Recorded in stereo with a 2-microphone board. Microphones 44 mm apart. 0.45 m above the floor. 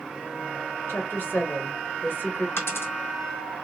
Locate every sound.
0.9 s a woman speaking: 55° left (ahead or behind), 1.4 m
2.6 s a dropped coin: 70° left (ahead or behind), 1.9 m